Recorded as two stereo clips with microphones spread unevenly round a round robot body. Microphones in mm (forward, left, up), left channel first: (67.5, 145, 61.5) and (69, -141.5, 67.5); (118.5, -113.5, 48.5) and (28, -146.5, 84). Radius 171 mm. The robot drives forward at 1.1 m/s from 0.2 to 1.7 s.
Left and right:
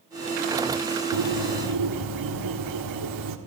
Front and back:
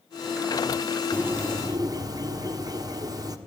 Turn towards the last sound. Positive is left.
turn(degrees=-110)